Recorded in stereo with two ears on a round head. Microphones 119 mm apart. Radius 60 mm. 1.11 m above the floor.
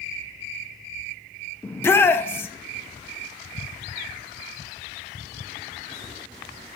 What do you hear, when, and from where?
1.6 s a shout: 15° left (ahead or behind), 0.6 m